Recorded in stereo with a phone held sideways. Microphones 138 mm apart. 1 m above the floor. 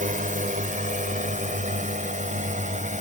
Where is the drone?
75° right (ahead or behind); by 3.0 s 65° right (ahead or behind).